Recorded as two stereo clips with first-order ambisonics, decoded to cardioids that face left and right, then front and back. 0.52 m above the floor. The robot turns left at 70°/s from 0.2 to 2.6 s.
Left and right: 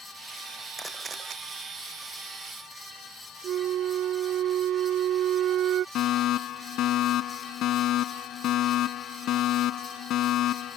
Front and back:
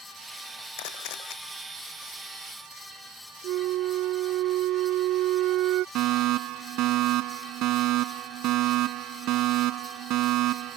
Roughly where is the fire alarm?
Behind left.